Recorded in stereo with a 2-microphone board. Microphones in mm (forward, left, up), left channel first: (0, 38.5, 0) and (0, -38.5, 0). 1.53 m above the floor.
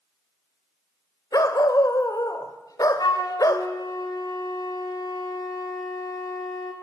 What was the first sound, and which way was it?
A dog barking, 50° left (ahead or behind).